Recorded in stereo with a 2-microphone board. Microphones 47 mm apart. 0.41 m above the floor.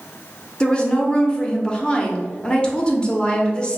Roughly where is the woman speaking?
Left.